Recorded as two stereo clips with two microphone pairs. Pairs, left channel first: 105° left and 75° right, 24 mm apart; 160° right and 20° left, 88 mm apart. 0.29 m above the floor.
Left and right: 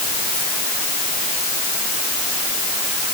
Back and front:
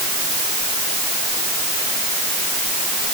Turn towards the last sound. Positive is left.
No sound to turn to.